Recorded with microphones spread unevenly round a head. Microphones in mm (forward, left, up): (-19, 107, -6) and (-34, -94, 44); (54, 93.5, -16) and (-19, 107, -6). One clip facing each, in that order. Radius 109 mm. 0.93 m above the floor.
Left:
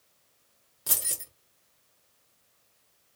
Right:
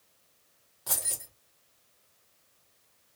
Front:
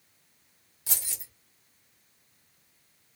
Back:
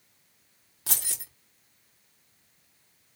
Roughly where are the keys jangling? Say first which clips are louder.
Even, back 4 dB; behind left.